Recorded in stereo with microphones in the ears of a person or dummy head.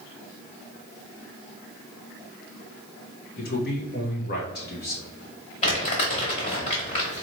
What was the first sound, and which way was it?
A man speaking, 45° left (ahead or behind).